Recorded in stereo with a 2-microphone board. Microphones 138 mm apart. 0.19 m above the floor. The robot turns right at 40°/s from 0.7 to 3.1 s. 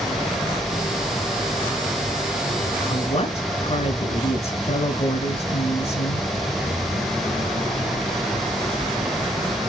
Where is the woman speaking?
45° left (ahead or behind), 2.0 m; by 6.3 s 50° left (ahead or behind), 2.0 m.